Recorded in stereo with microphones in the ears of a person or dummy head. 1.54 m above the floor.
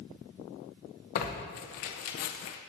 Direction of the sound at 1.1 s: 45° left (ahead or behind).